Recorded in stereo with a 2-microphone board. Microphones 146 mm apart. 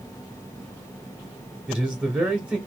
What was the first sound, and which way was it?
A man speaking, 10° right (ahead or behind).